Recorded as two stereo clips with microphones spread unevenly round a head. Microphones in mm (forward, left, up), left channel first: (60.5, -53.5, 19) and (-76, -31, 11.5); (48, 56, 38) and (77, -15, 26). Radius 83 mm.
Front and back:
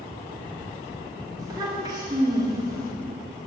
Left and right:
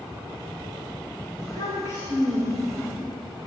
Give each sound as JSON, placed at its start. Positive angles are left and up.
{"t": 1.4, "sound": "a child speaking", "azimuth_deg": -125, "distance_m": 1.9}